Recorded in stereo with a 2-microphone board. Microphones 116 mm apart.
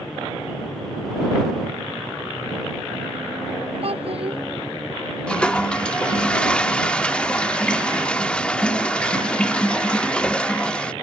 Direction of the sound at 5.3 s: 10° left (ahead or behind).